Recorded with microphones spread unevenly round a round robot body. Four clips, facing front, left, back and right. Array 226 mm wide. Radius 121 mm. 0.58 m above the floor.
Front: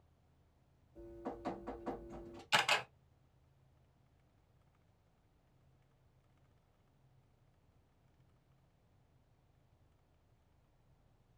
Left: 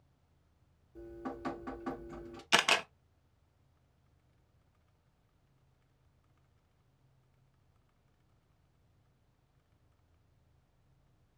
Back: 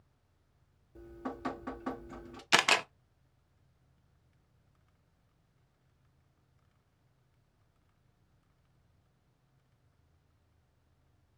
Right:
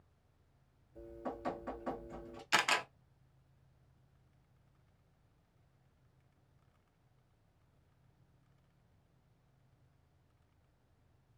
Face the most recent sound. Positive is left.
turn(degrees=155)